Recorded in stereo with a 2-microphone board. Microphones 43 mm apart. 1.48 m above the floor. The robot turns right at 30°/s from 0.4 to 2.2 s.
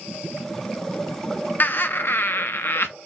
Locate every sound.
1.6 s laughter: 45° left (ahead or behind), 0.6 m; by 2.9 s 55° left (ahead or behind), 0.6 m